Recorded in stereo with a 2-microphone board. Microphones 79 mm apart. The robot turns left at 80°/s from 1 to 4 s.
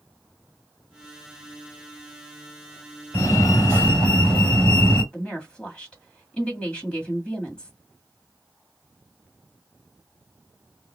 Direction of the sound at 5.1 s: 15° left (ahead or behind).